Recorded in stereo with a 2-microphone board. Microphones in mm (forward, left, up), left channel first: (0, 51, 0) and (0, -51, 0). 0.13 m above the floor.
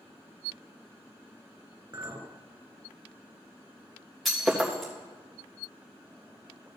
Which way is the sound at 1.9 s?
35° right (ahead or behind).